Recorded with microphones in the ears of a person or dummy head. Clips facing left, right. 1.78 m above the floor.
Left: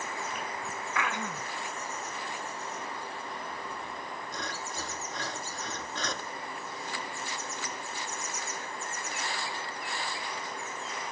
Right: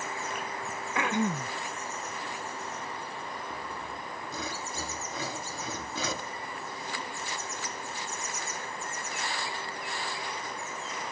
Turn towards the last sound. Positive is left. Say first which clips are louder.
# right 1 dB
turn(degrees=-10)  # may be behind; listen again after turning